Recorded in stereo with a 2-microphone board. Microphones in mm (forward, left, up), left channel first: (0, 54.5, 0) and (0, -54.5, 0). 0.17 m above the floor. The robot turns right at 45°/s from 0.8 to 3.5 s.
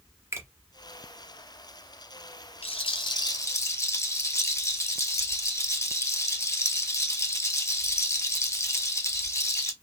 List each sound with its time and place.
0.3 s a finger snap: 25° right (ahead or behind), 1.2 m
2.6 s a rattle: 115° left, 0.6 m; by 9.7 s 150° left, 0.6 m